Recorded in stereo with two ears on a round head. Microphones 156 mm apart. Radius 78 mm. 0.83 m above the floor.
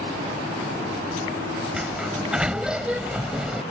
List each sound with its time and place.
1.7 s a sliding door: 5° right (ahead or behind)